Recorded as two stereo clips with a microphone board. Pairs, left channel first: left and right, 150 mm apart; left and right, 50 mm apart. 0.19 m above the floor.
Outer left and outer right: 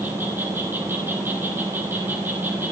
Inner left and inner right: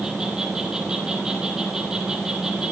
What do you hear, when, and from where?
0.0 s an insect: 15° right (ahead or behind), 3 m